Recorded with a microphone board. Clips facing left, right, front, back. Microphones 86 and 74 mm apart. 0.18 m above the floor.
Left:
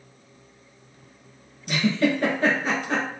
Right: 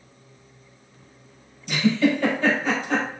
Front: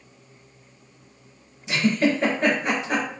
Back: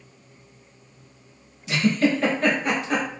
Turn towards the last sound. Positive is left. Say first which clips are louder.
# right 2 dB, even
turn(degrees=65)